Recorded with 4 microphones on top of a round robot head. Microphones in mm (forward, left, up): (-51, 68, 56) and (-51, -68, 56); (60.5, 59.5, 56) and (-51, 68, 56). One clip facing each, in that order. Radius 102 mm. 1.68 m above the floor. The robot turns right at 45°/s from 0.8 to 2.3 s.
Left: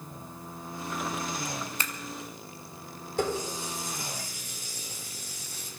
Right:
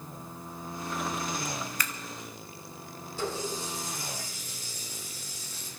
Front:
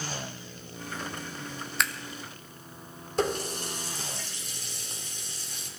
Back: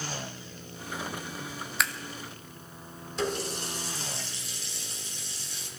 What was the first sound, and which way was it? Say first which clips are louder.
Scissors: even, even; 90° left.